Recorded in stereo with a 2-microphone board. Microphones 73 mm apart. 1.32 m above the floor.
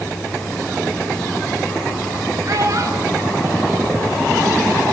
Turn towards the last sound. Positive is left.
turn(degrees=-45)  # may be behind; listen again after turning